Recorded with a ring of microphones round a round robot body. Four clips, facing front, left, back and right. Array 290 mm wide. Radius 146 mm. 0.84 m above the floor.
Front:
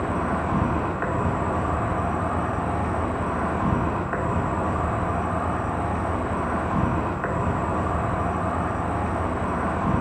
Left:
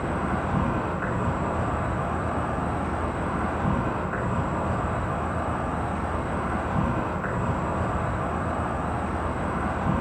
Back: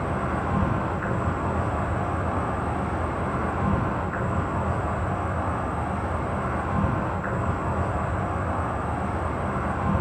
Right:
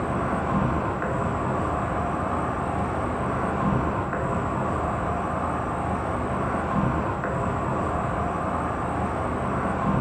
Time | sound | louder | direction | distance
0.0 | an insect | right 2 dB, front 2 dB | 15° right | 0.8 m